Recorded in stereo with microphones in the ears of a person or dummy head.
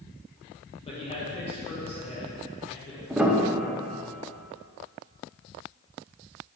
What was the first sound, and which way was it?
A man speaking, 30° left (ahead or behind).